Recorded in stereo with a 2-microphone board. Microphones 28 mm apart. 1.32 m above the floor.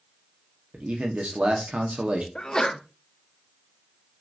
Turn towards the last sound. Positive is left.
turn(degrees=30)  # may be behind; listen again after turning